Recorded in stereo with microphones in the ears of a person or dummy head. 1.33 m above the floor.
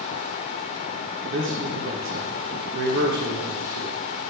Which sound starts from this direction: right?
A man speaking, at 1.3 s.